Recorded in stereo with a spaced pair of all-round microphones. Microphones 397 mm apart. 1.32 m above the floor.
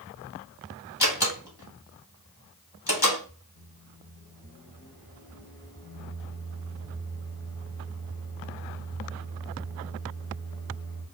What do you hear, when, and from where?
1.0 s a door slam: 80° left, 2 m
3.5 s a microwave: 75° left (ahead or behind), 1.8 m